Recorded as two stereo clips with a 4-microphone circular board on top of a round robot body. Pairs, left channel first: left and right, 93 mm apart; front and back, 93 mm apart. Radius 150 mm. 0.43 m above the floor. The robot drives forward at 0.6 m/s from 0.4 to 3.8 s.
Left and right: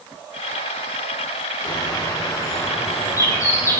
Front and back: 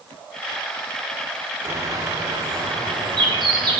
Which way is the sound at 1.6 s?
125° left.